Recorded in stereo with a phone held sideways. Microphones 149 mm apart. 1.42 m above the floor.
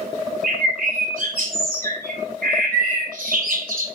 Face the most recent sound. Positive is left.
turn(degrees=-70)  # may be behind; listen again after turning